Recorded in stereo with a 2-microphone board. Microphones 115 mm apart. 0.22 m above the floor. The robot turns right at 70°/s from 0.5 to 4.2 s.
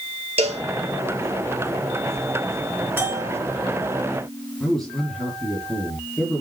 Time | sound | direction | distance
0.4 | a cowbell | 65° right (ahead or behind) | 3 m
3.0 | a bell | 15° right (ahead or behind) | 3 m
4.6 | a man speaking | centre (ahead or behind) | 5.5 m